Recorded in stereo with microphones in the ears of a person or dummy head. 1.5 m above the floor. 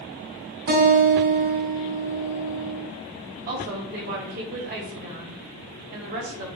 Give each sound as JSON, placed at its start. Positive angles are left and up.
{"t": 0.7, "sound": "a guitar", "side_deg": -60, "distance_m": 2.0}
{"t": 3.5, "sound": "a woman speaking", "side_deg": -45, "distance_m": 1.2}